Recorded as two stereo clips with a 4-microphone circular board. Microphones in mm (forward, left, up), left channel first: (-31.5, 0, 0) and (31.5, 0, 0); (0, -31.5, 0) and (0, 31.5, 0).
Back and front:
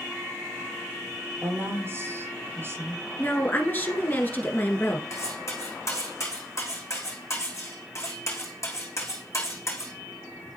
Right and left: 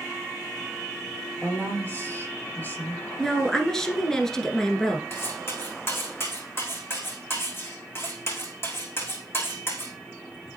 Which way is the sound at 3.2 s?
165° right.